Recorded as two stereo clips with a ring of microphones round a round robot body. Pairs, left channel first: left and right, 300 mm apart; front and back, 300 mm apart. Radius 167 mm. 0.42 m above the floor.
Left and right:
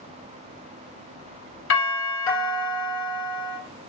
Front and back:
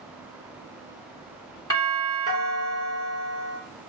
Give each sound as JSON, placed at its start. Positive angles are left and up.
{"t": 1.7, "sound": "a doorbell", "azimuth_deg": 70, "distance_m": 2.5}